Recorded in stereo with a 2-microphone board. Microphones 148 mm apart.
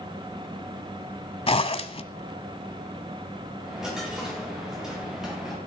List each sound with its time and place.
1.5 s a zipper: 40° left (ahead or behind), 0.9 m
3.6 s a dropped coin: 5° right (ahead or behind), 5 m